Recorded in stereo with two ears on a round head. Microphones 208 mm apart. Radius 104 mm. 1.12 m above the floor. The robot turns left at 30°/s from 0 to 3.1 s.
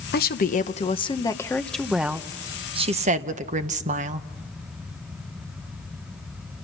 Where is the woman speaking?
50° left, 1.0 m; by 4.3 s 35° right, 1.0 m.